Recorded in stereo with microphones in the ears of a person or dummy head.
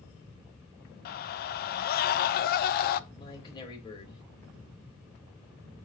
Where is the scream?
45° left (ahead or behind), 0.6 m.